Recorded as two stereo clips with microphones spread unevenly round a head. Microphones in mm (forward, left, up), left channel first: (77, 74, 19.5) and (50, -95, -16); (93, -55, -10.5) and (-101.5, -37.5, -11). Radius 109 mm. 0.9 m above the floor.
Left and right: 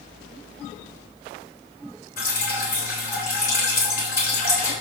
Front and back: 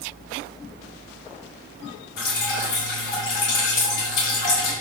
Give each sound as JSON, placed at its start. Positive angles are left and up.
{"t": 2.2, "sound": "dripping", "azimuth_deg": 45, "distance_m": 3.5}